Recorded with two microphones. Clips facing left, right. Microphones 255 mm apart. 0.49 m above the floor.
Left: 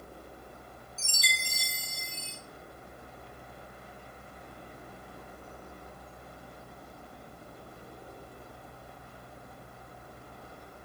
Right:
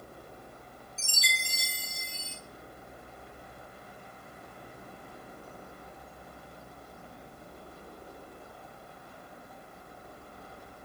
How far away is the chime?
About 2.5 m.